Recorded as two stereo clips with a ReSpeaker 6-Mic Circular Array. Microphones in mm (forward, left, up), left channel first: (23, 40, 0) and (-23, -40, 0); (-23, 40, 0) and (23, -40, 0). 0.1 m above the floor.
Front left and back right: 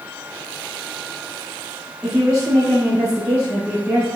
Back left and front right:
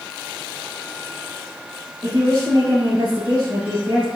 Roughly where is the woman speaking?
Ahead right.